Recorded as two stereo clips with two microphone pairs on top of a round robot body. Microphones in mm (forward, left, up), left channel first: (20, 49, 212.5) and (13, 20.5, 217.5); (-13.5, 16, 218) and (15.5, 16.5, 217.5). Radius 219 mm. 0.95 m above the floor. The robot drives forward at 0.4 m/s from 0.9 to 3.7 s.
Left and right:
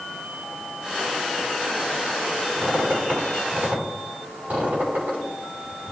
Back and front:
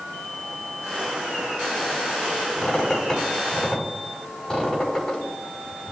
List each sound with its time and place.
2.6 s a squeak: 110° right, 3 m; by 5.9 s 115° right, 3 m